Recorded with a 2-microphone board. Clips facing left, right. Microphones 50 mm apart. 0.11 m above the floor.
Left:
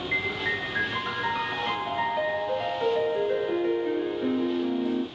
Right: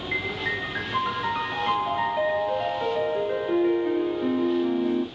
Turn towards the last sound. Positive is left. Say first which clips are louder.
# even
turn(degrees=-10)  # may be behind; listen again after turning